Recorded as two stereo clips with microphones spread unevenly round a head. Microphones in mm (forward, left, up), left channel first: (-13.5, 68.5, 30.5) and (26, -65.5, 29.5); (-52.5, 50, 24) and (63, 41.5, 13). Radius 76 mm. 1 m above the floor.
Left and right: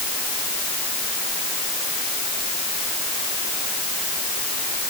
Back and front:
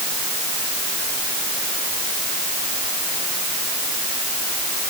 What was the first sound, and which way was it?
Only background noise.